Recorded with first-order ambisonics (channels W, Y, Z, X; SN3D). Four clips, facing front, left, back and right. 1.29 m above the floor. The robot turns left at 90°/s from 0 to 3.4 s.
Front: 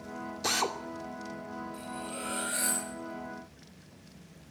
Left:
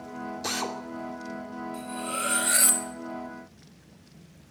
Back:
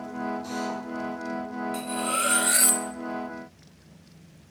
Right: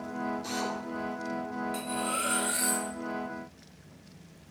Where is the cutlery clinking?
145° right, 4 m; by 2.9 s 115° left, 4 m.